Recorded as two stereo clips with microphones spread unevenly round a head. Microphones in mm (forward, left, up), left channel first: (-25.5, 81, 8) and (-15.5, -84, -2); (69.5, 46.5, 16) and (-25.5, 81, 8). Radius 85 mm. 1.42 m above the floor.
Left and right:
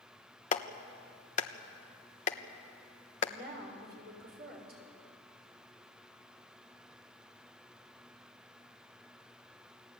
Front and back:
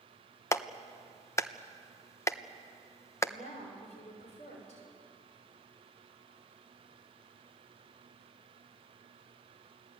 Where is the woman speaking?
50° right, 6 m.